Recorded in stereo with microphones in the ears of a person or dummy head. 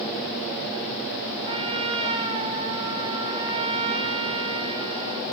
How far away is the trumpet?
About 1.2 m.